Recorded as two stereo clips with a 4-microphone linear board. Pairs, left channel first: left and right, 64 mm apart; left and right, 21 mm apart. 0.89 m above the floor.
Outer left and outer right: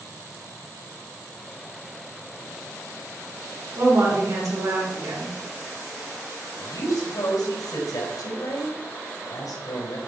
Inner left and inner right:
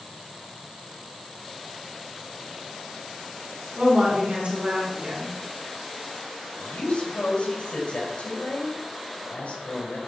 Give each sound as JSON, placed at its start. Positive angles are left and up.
{"t": 3.8, "sound": "a woman speaking", "side_deg": -80, "distance_m": 3.0}
{"t": 6.6, "sound": "a woman speaking", "side_deg": 80, "distance_m": 3.5}